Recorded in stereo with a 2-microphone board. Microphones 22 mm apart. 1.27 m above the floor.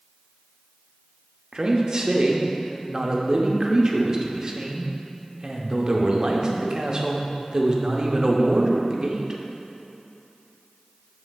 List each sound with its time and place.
1.5 s a man speaking: 30° right (ahead or behind), 0.6 m